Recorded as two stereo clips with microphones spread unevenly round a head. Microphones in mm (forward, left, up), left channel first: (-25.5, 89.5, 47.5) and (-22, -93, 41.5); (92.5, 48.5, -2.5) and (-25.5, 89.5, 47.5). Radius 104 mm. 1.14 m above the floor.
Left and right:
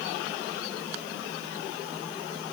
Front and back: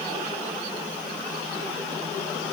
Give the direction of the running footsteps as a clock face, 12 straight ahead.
I don't hear running footsteps.